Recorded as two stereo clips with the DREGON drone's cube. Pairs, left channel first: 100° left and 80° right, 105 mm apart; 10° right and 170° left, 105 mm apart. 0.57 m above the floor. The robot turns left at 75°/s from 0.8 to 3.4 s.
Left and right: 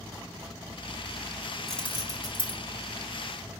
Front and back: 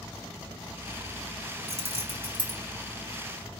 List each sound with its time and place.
1.7 s keys jangling: 170° right, 2.5 m; by 2.6 s 120° left, 2.5 m